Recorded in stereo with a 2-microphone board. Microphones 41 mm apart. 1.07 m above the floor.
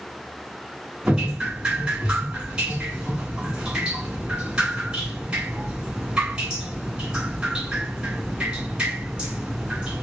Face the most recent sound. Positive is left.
turn(degrees=-25)  # may be behind; listen again after turning